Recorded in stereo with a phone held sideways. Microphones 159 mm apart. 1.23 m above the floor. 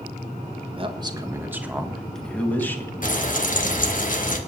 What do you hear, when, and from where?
0.8 s a man speaking: 35° right (ahead or behind), 1.3 m; by 2.9 s 15° left (ahead or behind), 2 m
3.0 s frying: 55° left (ahead or behind), 1.7 m